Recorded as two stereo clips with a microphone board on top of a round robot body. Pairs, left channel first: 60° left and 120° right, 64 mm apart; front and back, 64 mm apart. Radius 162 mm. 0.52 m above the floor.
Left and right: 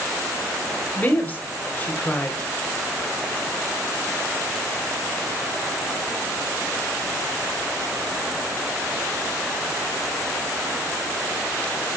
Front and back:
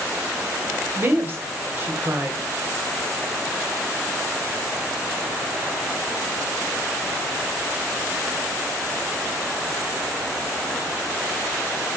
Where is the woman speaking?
125° left, 2.5 m.